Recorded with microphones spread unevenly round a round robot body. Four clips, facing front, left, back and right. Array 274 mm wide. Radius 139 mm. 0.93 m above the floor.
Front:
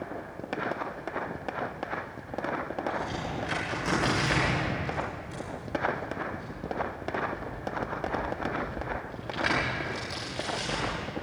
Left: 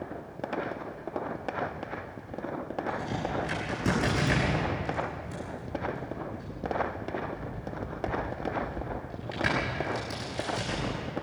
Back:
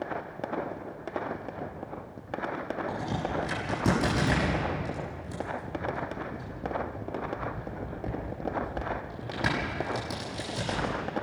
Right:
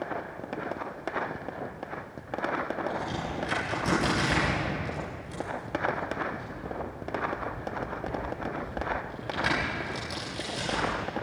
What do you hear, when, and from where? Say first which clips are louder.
2.9 s a crack: left 1 dB, back 1 dB; 160° left, 7 m